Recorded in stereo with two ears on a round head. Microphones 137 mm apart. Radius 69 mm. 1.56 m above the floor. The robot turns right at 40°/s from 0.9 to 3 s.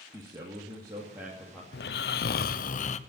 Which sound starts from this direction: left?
Snoring, at 1.7 s.